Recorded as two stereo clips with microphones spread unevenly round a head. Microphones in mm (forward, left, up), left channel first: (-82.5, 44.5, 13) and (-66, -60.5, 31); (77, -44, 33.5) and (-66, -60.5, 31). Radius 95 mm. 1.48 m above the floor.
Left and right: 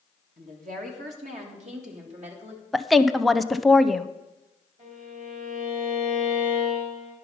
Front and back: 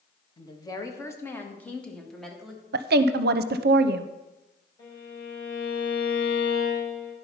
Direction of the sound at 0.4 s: 50° right.